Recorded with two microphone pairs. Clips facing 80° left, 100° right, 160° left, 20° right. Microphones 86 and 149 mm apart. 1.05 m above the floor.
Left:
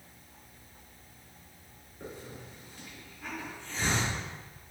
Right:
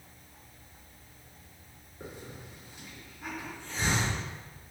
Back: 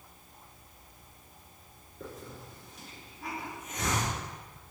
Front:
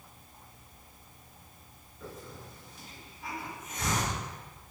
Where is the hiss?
175° right, 2.5 m.